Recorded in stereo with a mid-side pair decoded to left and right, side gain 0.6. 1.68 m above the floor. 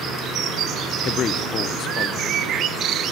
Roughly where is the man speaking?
Ahead left.